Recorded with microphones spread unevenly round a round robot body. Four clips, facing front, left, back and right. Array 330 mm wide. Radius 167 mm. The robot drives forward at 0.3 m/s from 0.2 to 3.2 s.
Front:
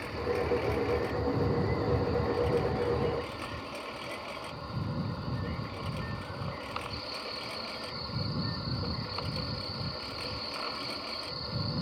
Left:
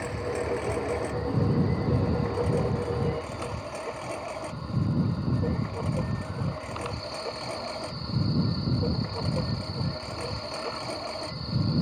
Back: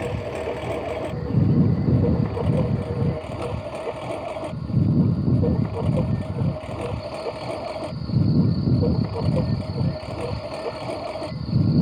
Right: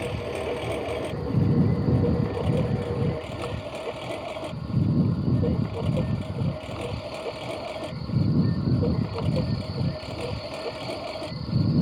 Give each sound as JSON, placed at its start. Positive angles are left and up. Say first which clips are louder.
{"t": 0.0, "sound": "a lawn mower", "louder": "right 1 dB, back 4 dB", "azimuth_deg": -165}